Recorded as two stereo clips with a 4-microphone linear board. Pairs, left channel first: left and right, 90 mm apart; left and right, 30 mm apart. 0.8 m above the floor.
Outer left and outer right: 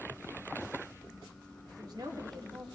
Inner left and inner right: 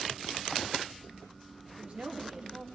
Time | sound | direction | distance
1.7 | a woman speaking | 45° right (ahead or behind) | 1.2 m